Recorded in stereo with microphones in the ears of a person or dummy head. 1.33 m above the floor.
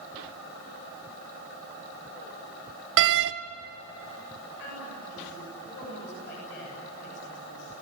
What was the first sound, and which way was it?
A door slam, 60° right (ahead or behind).